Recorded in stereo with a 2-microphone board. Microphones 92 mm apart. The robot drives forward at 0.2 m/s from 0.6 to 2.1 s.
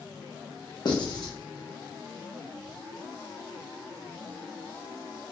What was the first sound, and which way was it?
Writing, 55° left (ahead or behind).